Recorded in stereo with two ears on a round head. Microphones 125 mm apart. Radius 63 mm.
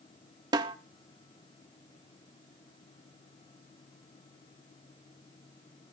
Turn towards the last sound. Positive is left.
turn(degrees=-30)  # may be behind; listen again after turning